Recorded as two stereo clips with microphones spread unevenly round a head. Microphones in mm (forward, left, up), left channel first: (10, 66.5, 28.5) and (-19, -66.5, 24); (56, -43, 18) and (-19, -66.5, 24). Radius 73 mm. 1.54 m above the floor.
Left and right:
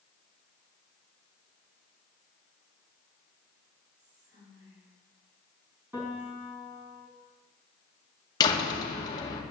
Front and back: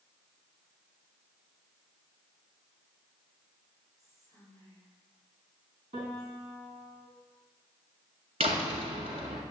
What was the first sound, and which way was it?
Whispering, 115° right.